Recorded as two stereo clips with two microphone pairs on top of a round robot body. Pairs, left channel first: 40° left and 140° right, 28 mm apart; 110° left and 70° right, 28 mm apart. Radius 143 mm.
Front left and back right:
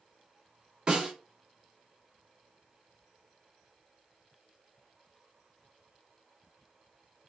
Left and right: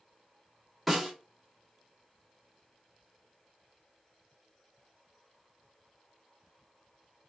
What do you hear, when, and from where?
0.9 s a snare drum: 145° right, 1.5 m